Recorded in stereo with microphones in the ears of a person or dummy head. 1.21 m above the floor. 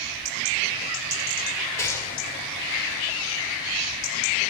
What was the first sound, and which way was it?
A gunshot, 15° left (ahead or behind).